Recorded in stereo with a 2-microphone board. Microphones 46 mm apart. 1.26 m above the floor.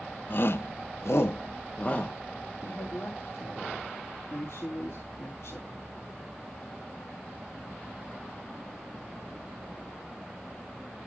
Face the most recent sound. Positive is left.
turn(degrees=65)  # may be behind; listen again after turning